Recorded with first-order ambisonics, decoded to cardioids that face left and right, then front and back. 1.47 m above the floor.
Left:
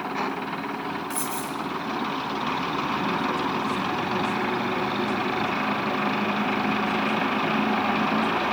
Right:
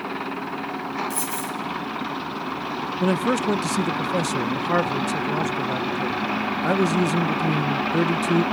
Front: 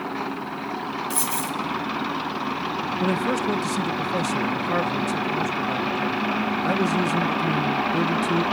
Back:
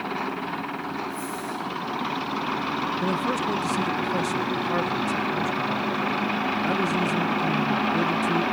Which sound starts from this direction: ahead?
A dropped coin, at 1.1 s.